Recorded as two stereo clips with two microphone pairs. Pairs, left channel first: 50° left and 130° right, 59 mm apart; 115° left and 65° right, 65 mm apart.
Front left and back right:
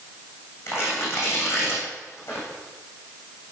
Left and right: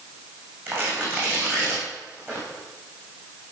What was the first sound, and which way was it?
Tearing paper, 5° right.